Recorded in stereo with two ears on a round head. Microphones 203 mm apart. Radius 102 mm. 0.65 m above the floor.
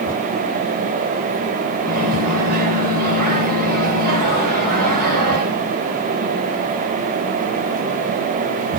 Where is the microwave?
40° right (ahead or behind), 3.5 m.